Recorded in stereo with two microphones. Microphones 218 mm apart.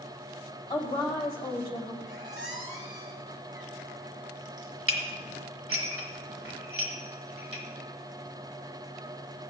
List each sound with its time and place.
0.7 s a woman speaking: 20° left (ahead or behind), 2.5 m
2.0 s a squeak: 60° right (ahead or behind), 2.5 m
4.9 s dishes clattering: 75° right (ahead or behind), 1.5 m